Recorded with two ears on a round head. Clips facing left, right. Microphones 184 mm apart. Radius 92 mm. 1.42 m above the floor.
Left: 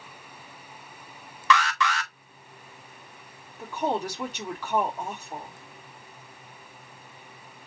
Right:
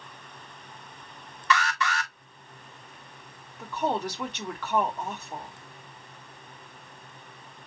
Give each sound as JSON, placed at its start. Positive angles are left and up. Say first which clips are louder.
{"t": 1.5, "sound": "an alarm", "louder": "left 3 dB", "side_deg": 60, "distance_m": 1.3}
{"t": 3.6, "sound": "a woman speaking", "louder": "left 1 dB", "side_deg": 10, "distance_m": 3.5}